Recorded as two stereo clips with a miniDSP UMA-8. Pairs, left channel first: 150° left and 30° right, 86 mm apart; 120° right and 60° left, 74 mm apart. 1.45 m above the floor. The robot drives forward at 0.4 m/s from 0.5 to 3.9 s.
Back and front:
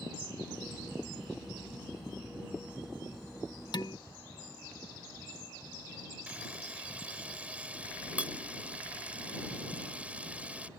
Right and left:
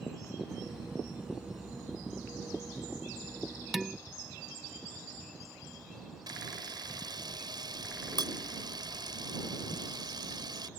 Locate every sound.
3.7 s dishes clattering: 145° left; by 4.0 s 150° left
6.3 s a camera shutter: 45° left